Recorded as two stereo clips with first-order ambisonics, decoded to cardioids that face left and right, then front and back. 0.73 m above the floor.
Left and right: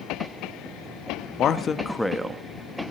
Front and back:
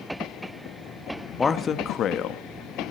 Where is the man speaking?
65° left, 0.7 m; by 2.5 s 20° right, 0.8 m.